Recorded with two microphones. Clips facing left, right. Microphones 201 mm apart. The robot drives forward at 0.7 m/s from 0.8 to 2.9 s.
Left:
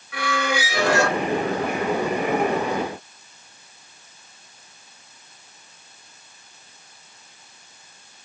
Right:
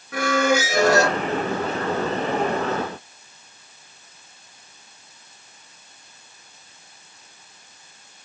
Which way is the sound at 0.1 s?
45° right (ahead or behind).